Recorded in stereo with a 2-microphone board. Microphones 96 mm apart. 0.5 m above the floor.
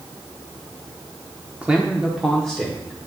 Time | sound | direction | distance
1.6 | a man speaking | 15° right (ahead or behind) | 0.9 m